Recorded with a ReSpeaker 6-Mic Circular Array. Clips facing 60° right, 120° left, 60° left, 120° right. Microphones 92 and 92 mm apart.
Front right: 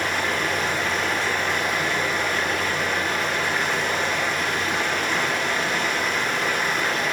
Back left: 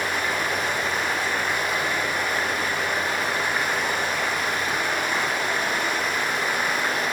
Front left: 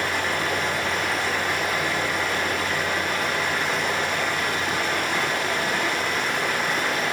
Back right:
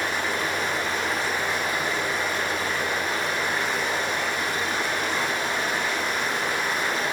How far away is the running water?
About 9.5 m.